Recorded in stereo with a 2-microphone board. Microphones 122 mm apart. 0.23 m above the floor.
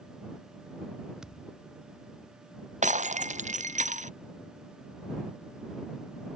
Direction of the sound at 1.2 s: 5° right (ahead or behind).